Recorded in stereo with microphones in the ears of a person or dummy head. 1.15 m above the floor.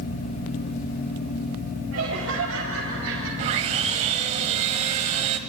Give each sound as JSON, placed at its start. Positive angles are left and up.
{"t": 1.9, "sound": "laughter", "side_deg": -75, "distance_m": 4.0}
{"t": 3.4, "sound": "sawing", "side_deg": -40, "distance_m": 1.2}